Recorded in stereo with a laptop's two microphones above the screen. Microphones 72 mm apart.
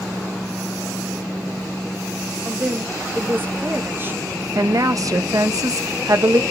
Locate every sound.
2.5 s a woman speaking: 30° right (ahead or behind), 1.4 m
4.5 s a woman speaking: 55° right (ahead or behind), 1.1 m